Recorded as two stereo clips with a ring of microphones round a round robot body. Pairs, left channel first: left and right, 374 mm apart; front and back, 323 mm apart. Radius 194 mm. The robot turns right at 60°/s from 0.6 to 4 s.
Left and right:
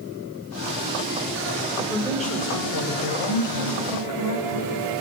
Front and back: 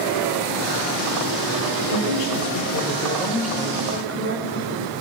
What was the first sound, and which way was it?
A woman speaking, 10° right.